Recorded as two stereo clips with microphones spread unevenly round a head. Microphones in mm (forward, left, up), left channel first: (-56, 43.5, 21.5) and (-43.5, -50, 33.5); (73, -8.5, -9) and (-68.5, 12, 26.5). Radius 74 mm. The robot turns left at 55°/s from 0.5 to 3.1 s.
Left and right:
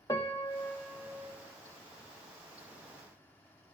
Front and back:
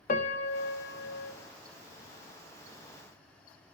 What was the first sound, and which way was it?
A piano, 25° left.